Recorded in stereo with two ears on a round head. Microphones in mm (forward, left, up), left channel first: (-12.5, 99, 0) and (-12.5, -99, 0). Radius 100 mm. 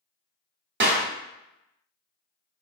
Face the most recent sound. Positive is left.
turn(degrees=-45)  # may be behind; listen again after turning